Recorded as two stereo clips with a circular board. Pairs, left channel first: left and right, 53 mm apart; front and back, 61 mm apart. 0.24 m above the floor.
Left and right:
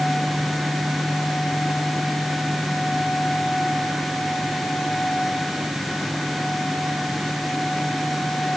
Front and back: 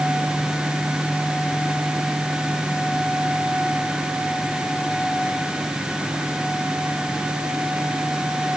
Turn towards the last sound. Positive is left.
No sound to turn to.